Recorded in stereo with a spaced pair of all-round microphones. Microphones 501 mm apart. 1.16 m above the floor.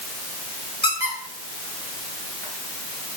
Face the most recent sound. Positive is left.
turn(degrees=10)  # may be behind; listen again after turning